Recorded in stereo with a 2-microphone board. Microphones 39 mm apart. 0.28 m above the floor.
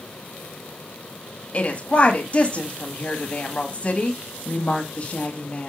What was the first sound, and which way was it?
A woman speaking, 30° left (ahead or behind).